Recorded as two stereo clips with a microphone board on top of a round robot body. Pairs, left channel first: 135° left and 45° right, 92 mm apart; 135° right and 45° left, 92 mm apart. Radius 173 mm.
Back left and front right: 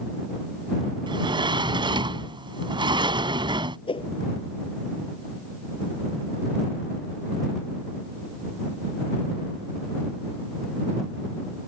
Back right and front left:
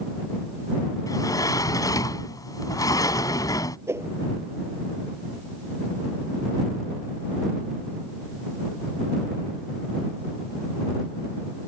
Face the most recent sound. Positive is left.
turn(degrees=105)